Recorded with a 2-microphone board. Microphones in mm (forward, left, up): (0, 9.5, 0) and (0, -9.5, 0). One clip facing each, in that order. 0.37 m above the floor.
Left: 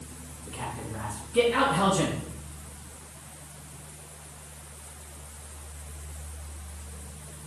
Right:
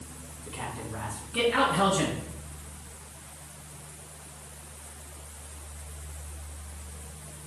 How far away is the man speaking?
About 3 m.